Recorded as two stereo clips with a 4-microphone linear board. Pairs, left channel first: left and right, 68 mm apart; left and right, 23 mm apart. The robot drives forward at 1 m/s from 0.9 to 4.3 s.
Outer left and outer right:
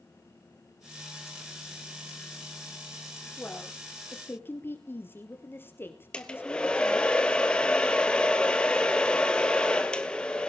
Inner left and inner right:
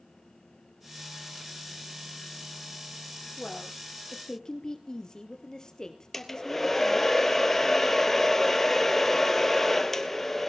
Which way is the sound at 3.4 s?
25° left (ahead or behind).